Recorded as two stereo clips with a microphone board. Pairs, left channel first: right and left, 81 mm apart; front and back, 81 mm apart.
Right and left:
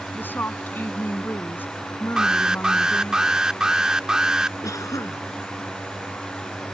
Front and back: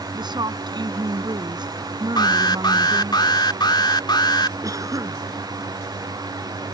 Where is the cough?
135° right.